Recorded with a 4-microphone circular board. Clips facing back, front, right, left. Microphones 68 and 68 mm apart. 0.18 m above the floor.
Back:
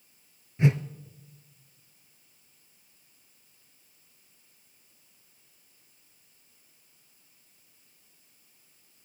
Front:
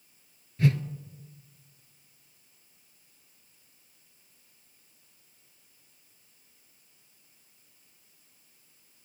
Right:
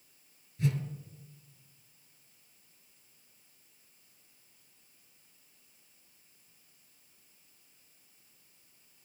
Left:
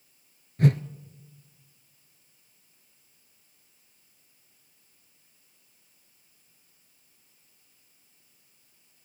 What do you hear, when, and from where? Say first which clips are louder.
0.6 s a whoosh: back 1 dB, left 9 dB; 115° left, 1.0 m